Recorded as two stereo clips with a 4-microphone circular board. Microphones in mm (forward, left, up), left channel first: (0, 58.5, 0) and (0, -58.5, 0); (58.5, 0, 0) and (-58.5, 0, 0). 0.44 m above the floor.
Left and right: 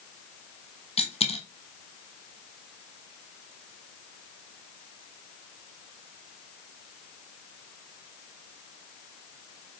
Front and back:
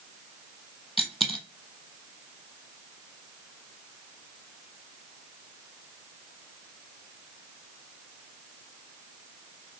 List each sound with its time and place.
1.0 s a dropped coin: 90° left, 0.9 m